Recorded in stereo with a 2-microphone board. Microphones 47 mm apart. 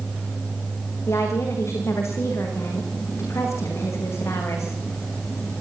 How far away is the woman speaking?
About 8.5 m.